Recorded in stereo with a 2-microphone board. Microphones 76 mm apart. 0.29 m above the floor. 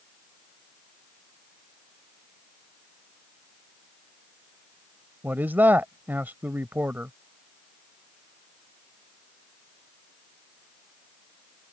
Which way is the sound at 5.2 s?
25° right (ahead or behind).